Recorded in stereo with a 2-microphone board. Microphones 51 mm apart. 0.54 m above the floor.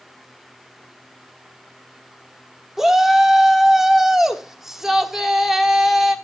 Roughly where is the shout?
Centre.